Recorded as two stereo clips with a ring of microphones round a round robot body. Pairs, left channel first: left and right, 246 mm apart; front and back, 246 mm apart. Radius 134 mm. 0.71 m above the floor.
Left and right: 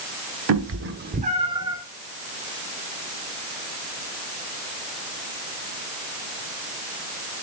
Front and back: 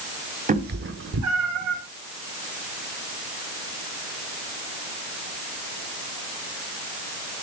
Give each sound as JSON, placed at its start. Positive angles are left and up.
{"t": 0.5, "sound": "a cat meowing", "azimuth_deg": -120, "distance_m": 1.0}